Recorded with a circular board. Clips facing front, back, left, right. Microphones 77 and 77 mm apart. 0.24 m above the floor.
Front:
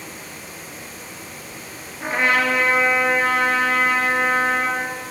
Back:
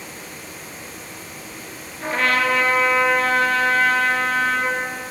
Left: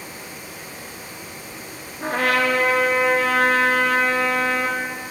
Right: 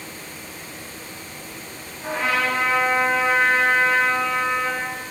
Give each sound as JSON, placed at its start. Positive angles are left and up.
{"t": 2.0, "sound": "a trumpet", "azimuth_deg": 70, "distance_m": 1.6}